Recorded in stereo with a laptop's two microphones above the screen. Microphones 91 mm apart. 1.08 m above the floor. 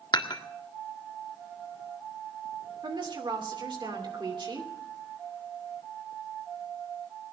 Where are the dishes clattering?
50° left (ahead or behind), 1.6 m.